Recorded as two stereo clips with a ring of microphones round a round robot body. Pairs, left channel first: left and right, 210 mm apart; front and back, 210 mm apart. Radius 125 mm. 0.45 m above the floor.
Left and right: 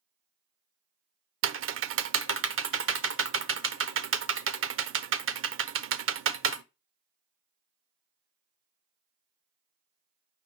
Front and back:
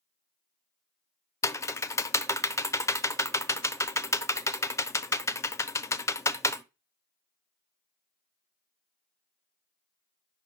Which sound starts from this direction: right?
Typing on a keyboard, at 1.4 s.